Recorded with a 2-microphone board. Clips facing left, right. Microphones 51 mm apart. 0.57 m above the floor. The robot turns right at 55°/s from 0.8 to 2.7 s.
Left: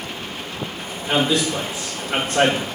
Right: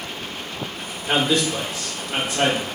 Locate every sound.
1.1 s a man speaking: 20° right, 1.3 m; by 2.7 s 70° left, 1.3 m